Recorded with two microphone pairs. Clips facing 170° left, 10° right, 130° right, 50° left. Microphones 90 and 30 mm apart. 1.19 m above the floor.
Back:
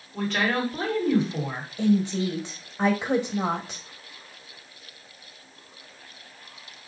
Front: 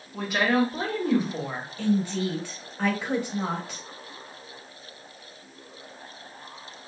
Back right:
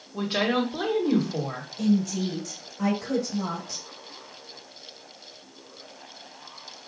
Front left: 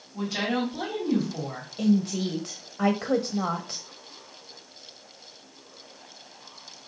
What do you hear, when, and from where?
0.1 s a woman speaking: 90° right, 1.2 m
1.8 s a woman speaking: 100° left, 0.8 m